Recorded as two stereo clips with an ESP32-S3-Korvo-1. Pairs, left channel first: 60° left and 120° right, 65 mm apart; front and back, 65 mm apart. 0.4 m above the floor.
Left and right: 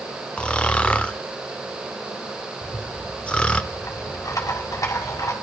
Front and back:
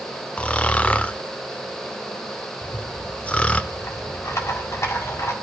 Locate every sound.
0.4 s snoring: 20° left, 0.6 m
2.6 s a rattle: 35° left, 1.9 m